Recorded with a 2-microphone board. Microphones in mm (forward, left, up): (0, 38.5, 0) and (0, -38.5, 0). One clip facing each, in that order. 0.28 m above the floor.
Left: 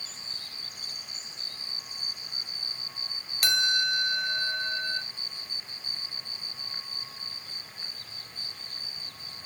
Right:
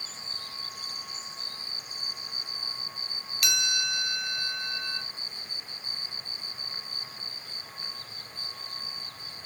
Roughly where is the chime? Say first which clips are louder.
Left 4 dB; left.